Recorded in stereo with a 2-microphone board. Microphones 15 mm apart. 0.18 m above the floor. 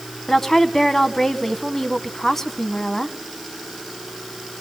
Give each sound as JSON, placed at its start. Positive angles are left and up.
{"t": 0.3, "sound": "a woman speaking", "side_deg": 25, "distance_m": 1.2}